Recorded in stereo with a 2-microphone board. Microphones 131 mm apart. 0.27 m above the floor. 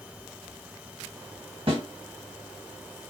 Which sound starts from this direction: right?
A snare drum, at 1.7 s.